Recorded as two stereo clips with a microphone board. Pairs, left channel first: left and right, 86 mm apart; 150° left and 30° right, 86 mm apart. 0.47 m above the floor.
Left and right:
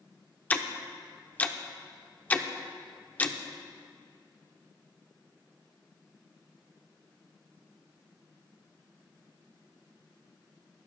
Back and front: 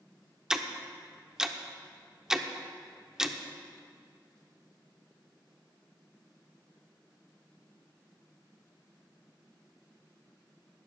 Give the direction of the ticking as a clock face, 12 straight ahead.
11 o'clock.